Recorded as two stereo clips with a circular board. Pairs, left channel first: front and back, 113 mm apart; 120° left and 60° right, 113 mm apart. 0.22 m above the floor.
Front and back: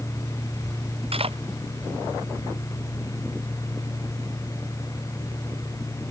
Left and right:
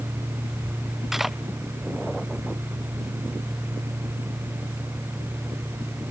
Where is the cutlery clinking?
150° right.